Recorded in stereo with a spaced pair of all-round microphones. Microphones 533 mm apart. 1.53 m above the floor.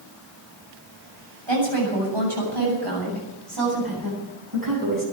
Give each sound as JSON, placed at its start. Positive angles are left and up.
{"t": 1.5, "sound": "a woman speaking", "side_deg": -55, "distance_m": 8.0}